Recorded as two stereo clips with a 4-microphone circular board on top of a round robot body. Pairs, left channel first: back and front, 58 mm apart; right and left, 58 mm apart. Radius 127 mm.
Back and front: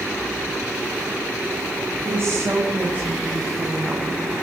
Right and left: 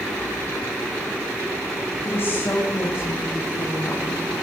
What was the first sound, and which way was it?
A woman speaking, 45° right.